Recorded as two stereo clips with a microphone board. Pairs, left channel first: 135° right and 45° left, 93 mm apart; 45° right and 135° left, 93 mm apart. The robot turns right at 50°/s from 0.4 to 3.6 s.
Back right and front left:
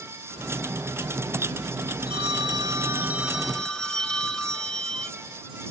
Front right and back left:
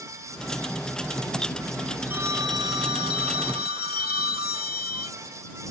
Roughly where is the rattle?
I don't hear a rattle.